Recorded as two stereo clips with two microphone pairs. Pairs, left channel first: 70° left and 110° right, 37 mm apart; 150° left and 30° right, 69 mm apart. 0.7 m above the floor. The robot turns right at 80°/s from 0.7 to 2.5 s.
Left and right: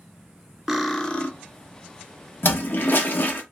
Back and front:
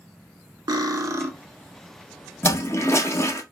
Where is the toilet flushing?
100° left, 0.5 m; by 3.4 s 105° left, 0.5 m.